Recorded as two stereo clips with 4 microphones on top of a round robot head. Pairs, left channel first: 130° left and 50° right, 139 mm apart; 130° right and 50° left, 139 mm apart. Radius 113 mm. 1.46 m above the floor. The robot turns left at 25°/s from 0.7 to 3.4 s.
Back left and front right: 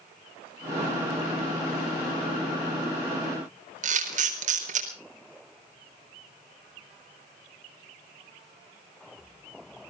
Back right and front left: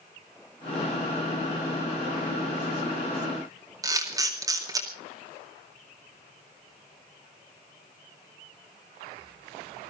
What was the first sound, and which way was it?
A camera shutter, 15° right.